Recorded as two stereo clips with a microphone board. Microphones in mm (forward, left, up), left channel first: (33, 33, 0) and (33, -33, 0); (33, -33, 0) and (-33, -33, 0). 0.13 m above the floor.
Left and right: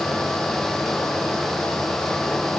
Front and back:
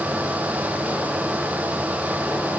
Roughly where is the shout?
No shout in this recording.